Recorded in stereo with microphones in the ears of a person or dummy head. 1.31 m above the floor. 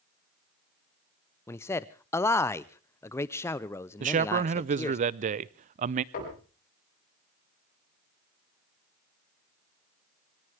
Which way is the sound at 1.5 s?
5° left (ahead or behind).